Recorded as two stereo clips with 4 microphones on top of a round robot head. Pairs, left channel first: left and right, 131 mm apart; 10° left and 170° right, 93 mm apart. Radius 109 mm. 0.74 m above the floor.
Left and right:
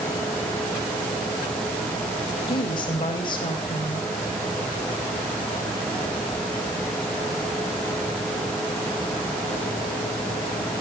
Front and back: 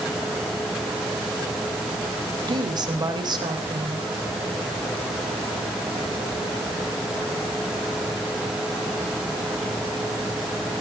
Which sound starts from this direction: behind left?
A woman speaking, at 2.5 s.